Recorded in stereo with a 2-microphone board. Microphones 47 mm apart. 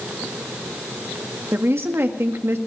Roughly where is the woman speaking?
Right.